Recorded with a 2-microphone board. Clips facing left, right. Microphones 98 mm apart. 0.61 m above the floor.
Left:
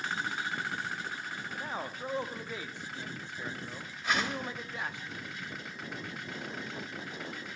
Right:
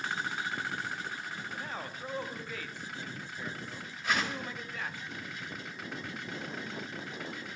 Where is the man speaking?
20° left (ahead or behind), 0.5 m.